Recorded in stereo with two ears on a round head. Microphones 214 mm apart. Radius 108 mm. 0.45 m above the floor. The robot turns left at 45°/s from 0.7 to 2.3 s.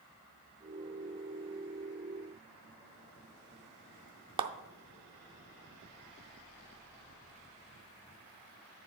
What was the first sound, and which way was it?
A clap, 20° right (ahead or behind).